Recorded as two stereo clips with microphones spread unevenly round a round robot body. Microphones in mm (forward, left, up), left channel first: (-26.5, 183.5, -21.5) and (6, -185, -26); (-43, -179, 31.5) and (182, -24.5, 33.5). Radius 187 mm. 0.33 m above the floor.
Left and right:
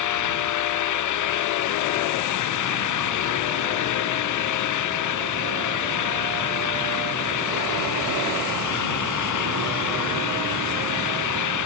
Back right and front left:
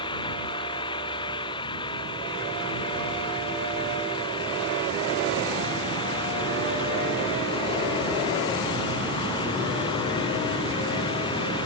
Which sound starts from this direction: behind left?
An engine running, at 0.0 s.